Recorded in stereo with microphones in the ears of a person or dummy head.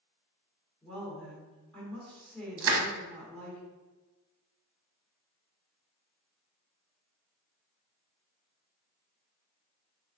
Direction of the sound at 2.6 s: 65° right (ahead or behind).